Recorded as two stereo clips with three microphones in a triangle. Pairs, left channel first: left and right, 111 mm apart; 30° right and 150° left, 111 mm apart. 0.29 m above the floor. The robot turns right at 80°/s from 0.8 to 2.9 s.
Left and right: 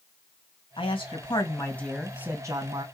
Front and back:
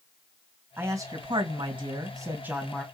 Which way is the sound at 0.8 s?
85° left.